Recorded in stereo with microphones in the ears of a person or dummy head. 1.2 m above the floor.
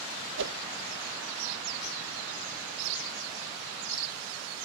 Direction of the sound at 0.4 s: 65° right (ahead or behind).